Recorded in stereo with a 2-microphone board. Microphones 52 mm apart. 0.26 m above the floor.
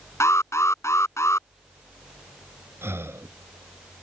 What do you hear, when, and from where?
0.2 s an alarm: 65° left (ahead or behind)
2.8 s breathing: 50° right (ahead or behind)